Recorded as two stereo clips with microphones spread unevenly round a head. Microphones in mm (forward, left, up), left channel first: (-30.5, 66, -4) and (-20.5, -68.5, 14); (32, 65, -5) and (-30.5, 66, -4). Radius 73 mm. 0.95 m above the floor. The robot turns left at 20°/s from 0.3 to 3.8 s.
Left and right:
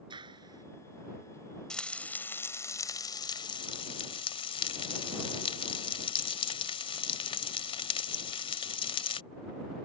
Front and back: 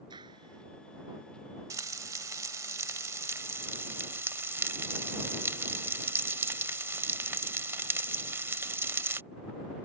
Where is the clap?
140° right; by 0.7 s 150° right.